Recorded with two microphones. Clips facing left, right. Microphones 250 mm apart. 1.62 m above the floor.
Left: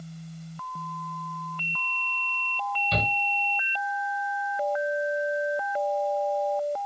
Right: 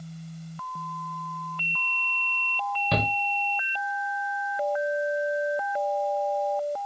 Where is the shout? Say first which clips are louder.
Right 4 dB; 65° right (ahead or behind), 1.3 m.